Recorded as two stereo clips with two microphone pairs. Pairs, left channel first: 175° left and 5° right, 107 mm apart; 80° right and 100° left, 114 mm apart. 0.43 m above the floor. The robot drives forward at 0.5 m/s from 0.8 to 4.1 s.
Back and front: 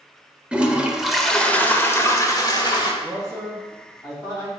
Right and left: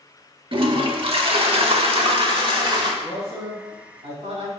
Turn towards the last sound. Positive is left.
turn(degrees=120)